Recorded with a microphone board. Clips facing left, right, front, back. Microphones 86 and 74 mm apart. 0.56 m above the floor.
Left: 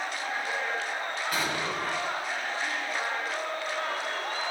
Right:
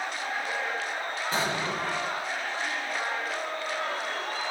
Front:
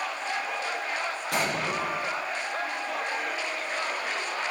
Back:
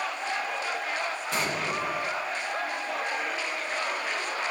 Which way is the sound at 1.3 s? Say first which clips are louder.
Right 3 dB, front 2 dB; 30° right.